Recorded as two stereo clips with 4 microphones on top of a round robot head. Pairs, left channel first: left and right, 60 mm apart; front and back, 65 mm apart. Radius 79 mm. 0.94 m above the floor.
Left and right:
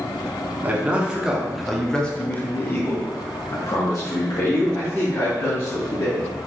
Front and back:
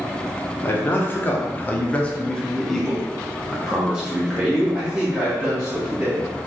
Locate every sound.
0.6 s a man speaking: 40° right, 1.0 m; by 6.3 s 110° left, 2.5 m